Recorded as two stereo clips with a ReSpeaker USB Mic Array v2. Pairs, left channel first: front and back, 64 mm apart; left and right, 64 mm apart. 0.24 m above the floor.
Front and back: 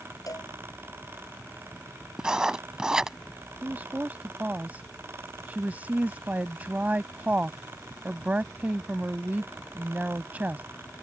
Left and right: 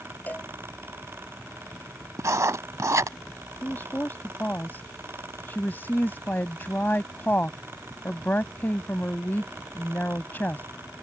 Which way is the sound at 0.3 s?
25° left.